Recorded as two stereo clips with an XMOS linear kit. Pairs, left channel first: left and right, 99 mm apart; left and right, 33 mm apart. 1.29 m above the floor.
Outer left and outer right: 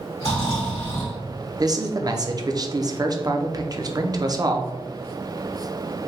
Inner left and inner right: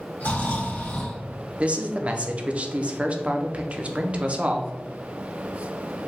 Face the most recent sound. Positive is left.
turn(degrees=-40)  # may be behind; listen again after turning